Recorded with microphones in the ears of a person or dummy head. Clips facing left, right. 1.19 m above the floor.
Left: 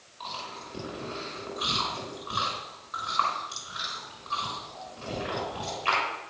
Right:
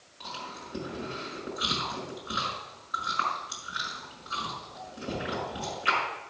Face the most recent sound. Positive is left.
turn(degrees=-25)  # may be behind; listen again after turning